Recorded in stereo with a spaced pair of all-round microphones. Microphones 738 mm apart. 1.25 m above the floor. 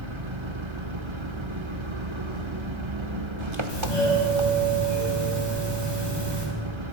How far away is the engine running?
About 1.3 m.